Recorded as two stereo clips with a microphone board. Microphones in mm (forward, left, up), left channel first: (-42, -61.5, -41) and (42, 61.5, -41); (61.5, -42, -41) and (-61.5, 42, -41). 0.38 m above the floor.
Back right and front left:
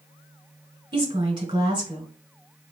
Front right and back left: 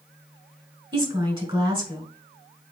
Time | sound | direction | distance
0.9 | a woman speaking | 100° left | 1.7 m